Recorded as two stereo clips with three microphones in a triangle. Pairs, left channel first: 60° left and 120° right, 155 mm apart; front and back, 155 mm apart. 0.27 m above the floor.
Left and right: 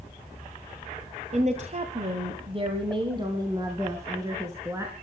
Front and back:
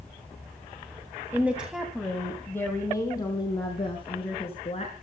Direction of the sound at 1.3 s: 105° right.